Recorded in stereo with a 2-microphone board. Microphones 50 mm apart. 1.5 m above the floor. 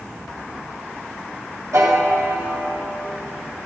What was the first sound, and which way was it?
A piano, 65° right (ahead or behind).